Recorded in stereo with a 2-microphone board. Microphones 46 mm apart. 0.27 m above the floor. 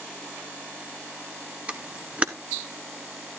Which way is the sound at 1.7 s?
30° right (ahead or behind).